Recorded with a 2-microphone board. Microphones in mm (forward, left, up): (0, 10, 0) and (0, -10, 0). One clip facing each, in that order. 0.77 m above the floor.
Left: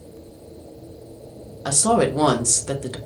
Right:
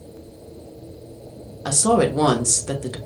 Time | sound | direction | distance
1.6 | a woman speaking | 5° left (ahead or behind) | 1.0 m